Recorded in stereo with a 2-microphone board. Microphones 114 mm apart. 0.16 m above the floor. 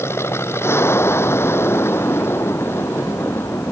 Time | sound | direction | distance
0.0 | an aircraft | 25° left (ahead or behind) | ?